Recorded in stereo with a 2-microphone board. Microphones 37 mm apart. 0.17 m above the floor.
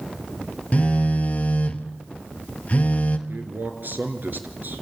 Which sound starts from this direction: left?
A phone buzzing, at 0.7 s.